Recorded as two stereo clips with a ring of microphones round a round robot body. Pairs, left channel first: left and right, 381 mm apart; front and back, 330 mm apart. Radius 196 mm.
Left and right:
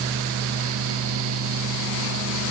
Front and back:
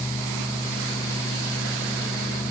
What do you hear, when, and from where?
Only background noise.